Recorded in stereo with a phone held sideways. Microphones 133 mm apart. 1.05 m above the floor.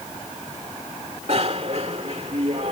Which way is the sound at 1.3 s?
50° right (ahead or behind).